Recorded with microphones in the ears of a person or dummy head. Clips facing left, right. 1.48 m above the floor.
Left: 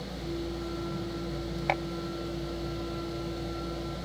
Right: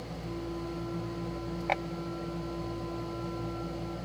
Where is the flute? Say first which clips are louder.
Left 3 dB; 35° left (ahead or behind), 7 m.